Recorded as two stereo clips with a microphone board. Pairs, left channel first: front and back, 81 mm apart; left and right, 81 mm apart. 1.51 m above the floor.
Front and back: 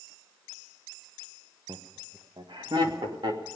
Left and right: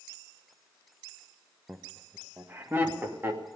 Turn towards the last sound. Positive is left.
turn(degrees=-155)